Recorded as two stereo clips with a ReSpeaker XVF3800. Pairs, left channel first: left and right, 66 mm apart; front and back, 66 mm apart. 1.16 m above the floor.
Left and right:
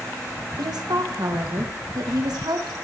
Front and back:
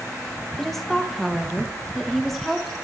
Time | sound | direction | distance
0.6 | a woman speaking | 85° right | 0.8 m